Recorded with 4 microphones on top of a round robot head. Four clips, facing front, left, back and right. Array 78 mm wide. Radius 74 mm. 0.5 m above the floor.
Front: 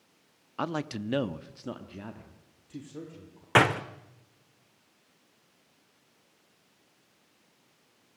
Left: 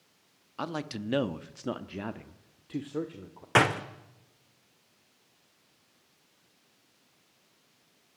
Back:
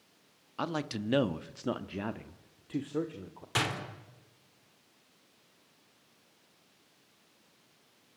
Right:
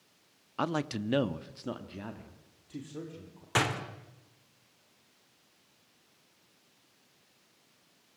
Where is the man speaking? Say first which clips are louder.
Right 3 dB, front 2 dB; 50° right, 1.0 m; by 3.5 s 135° left, 2 m.